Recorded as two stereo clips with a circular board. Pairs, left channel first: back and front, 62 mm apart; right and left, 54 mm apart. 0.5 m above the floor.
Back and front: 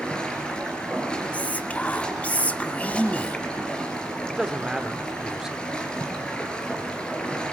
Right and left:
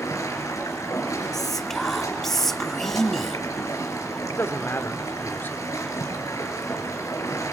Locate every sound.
0.0 s running water: 105° right, 4 m
1.3 s whispering: 165° right, 0.8 m
4.3 s a man speaking: 80° right, 1.3 m